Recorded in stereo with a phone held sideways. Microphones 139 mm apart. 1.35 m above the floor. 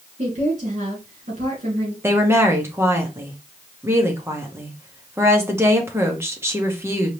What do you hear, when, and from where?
0.2 s a woman speaking: 50° right (ahead or behind), 2.5 m
2.0 s a woman speaking: 15° right (ahead or behind), 1.1 m